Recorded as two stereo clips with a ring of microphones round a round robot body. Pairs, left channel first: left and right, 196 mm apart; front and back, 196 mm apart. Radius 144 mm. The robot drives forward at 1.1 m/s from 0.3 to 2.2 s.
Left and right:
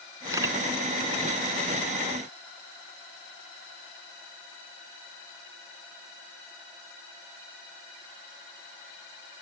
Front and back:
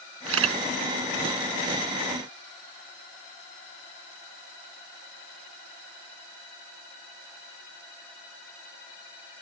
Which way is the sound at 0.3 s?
170° right.